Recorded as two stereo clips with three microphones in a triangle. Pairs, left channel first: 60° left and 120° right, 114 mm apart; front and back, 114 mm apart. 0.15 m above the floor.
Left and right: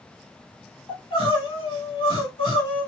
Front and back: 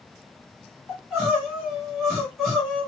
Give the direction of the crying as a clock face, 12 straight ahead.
9 o'clock.